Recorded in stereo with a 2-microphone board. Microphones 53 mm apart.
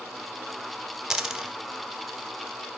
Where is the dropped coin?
10° right (ahead or behind), 0.7 m.